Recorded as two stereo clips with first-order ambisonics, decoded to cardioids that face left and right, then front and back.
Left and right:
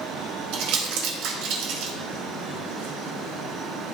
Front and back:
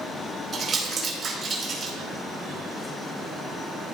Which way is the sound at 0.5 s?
120° right.